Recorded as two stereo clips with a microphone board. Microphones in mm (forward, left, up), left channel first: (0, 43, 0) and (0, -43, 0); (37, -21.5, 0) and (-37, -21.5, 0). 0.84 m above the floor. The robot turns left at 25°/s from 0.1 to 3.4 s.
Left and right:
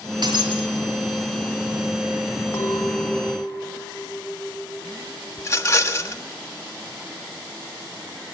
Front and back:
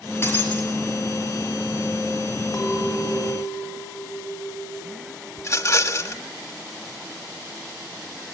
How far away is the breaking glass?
About 5.5 m.